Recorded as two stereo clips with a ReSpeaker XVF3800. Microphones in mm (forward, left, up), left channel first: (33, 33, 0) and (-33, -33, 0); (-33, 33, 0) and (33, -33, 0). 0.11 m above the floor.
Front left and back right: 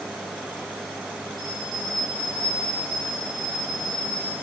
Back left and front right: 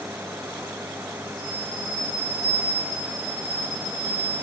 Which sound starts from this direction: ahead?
A bell, at 1.4 s.